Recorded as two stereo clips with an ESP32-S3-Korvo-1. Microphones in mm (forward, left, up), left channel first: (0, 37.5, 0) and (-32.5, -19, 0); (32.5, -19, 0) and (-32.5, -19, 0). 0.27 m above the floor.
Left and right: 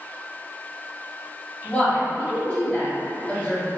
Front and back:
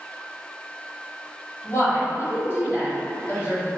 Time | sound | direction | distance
1.6 | a woman speaking | straight ahead | 1.8 m